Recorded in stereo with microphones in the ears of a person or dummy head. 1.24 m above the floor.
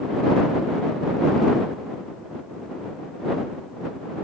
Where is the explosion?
No explosion in this recording.